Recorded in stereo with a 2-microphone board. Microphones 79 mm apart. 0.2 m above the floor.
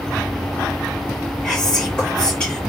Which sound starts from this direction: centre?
Whispering, at 1.4 s.